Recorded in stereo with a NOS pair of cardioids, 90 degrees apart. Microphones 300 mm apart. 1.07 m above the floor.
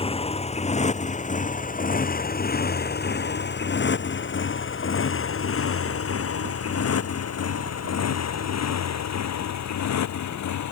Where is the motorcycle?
20° left; by 10.7 s 65° left.